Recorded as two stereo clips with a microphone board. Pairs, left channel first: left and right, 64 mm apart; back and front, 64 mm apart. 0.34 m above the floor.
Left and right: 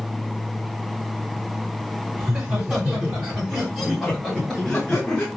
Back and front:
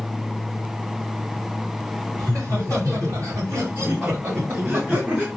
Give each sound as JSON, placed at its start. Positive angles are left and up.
{"t": 2.2, "sound": "laughter", "azimuth_deg": -25, "distance_m": 2.5}